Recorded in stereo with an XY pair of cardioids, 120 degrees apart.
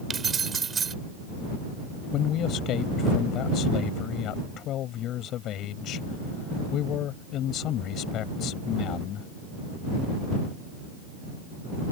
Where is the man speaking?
65° left.